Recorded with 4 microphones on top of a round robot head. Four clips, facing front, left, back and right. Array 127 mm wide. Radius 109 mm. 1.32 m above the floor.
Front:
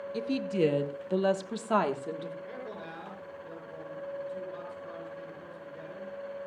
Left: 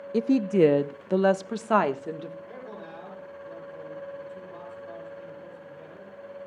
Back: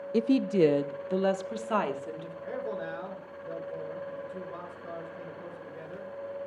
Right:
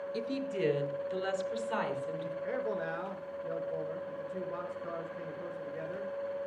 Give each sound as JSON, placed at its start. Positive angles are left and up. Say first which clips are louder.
{"t": 0.1, "sound": "a woman speaking", "louder": "left 15 dB, back 6 dB", "azimuth_deg": 135, "distance_m": 0.5}
{"t": 2.4, "sound": "a man speaking", "louder": "right 7 dB, back 6 dB", "azimuth_deg": -120, "distance_m": 6.0}